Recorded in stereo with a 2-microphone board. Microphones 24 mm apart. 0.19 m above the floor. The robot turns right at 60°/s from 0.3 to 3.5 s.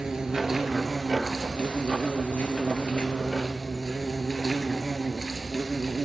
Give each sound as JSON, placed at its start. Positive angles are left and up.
{"t": 0.0, "sound": "an insect", "azimuth_deg": -40, "distance_m": 1.2}